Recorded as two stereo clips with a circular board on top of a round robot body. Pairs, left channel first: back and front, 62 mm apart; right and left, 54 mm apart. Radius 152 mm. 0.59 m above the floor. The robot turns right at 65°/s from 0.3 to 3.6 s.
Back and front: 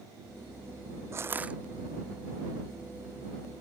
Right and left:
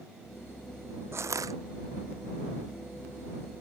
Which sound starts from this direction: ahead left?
Crushing, at 1.1 s.